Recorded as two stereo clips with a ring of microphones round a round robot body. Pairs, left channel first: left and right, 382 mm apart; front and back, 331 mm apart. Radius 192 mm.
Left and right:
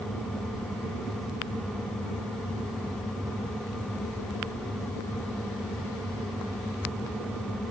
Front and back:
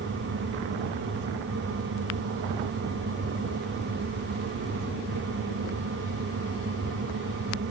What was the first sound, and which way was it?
Only background noise.